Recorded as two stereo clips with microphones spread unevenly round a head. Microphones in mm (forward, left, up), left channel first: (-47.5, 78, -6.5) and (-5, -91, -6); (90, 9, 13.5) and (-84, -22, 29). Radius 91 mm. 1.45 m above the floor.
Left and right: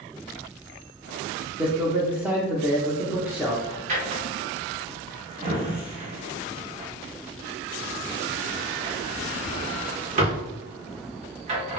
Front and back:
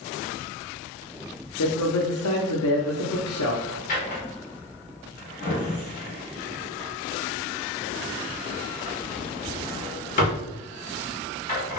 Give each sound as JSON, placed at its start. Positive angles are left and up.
{"t": 1.6, "sound": "a man speaking", "azimuth_deg": 5, "distance_m": 0.6}
{"t": 3.9, "sound": "a drawer", "azimuth_deg": -35, "distance_m": 1.0}